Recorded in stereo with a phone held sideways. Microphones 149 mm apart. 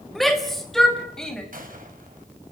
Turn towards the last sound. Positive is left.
turn(degrees=-75)  # may be behind; listen again after turning